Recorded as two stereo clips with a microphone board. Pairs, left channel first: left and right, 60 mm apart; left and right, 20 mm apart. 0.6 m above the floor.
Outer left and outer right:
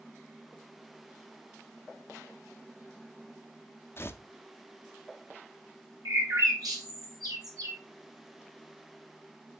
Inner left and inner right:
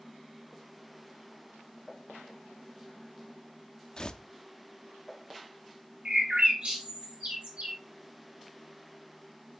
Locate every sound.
4.0 s tearing paper: 40° left (ahead or behind), 0.5 m
6.0 s a bird: 70° right (ahead or behind), 2 m